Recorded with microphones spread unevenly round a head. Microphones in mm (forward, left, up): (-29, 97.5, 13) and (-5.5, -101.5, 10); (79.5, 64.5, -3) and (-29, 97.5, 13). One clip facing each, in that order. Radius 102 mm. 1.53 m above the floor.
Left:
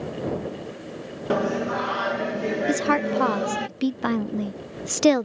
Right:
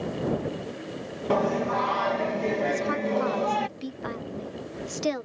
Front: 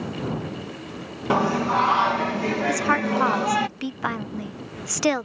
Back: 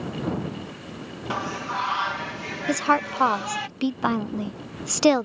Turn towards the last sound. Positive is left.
turn(degrees=105)